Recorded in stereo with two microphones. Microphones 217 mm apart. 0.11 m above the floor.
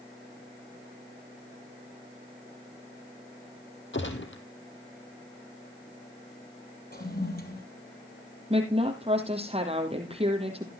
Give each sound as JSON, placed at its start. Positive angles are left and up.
{"t": 3.9, "sound": "a gunshot", "side_deg": 60, "distance_m": 1.8}
{"t": 6.9, "sound": "a toilet flushing", "side_deg": 45, "distance_m": 3.0}
{"t": 8.5, "sound": "a woman speaking", "side_deg": -25, "distance_m": 3.5}